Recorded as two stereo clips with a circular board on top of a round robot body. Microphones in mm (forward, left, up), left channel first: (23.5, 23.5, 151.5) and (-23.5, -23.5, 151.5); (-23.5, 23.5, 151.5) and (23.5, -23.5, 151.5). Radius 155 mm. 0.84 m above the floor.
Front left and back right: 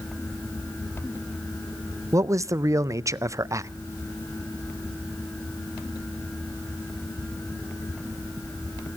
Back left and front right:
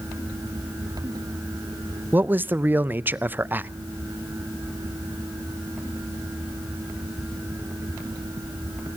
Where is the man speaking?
100° right, 0.6 m.